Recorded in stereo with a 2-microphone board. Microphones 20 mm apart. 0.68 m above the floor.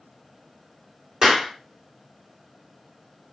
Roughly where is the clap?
Right.